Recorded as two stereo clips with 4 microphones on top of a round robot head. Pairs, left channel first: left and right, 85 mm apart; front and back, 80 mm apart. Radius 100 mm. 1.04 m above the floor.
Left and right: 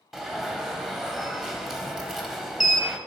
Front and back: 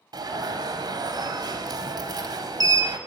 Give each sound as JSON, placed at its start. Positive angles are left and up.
{"t": 0.1, "sound": "an alarm", "azimuth_deg": -175, "distance_m": 0.8}